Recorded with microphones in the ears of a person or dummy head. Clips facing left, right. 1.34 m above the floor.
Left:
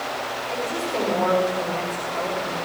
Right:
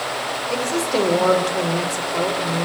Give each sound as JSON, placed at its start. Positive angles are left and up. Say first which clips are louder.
{"t": 0.5, "sound": "a woman speaking", "louder": "right 6 dB", "side_deg": -45, "distance_m": 5.0}